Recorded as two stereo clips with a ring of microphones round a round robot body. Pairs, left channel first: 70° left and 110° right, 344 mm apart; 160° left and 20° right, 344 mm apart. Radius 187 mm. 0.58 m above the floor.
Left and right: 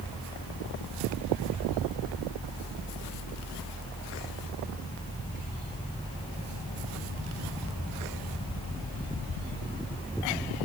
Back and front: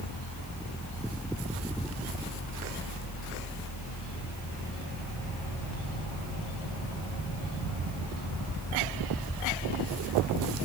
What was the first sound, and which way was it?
Only background noise.